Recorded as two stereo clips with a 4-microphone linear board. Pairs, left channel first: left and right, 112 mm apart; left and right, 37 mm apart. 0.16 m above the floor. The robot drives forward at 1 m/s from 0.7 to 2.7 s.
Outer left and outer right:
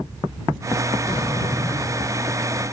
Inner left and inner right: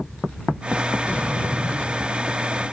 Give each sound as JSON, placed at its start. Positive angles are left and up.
{"t": 1.1, "sound": "a sliding door", "side_deg": 45, "distance_m": 0.8}